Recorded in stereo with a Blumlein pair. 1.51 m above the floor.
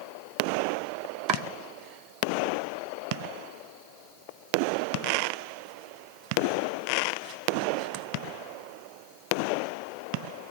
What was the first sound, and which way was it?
Chopping, 35° right.